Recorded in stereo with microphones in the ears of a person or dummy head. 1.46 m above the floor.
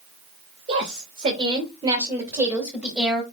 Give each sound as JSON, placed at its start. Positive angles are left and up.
{"t": 0.7, "sound": "a woman speaking", "side_deg": -50, "distance_m": 2.5}